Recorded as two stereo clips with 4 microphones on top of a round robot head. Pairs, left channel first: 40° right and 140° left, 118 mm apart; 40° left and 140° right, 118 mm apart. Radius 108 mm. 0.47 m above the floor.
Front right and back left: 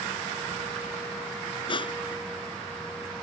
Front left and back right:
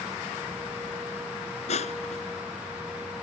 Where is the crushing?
10° left.